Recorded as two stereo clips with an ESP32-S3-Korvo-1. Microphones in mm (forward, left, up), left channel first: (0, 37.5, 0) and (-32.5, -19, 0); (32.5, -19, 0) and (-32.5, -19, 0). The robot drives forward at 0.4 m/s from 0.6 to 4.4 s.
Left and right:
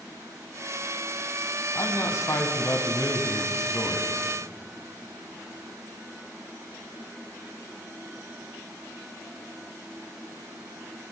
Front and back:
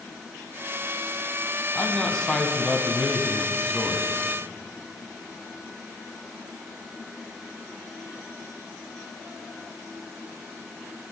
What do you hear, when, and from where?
1.8 s a man speaking: 70° left, 1.8 m; by 4.1 s 105° left, 1.8 m